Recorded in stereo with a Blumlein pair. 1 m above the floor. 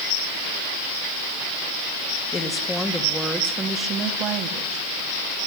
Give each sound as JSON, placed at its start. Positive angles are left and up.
{"t": 2.3, "sound": "a woman speaking", "azimuth_deg": 15, "distance_m": 1.8}